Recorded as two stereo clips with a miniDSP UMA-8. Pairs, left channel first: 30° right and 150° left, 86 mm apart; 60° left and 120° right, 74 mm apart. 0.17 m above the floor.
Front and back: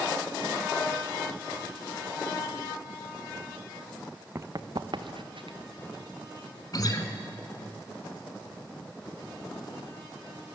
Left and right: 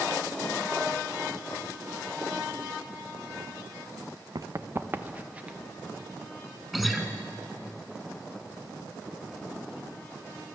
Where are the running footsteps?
150° right, 0.6 m; by 5.6 s 165° left, 1.4 m.